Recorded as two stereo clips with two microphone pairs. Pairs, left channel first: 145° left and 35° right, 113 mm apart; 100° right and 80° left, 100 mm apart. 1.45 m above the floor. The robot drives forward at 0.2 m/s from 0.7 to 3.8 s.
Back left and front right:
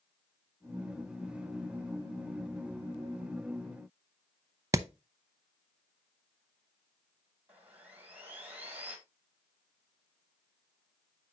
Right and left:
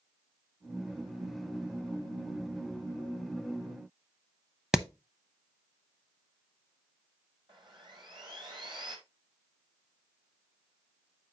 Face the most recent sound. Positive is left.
turn(degrees=40)